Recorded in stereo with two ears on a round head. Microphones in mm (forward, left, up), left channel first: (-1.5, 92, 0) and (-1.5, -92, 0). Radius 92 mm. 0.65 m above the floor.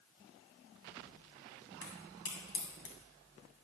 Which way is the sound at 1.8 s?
65° left (ahead or behind).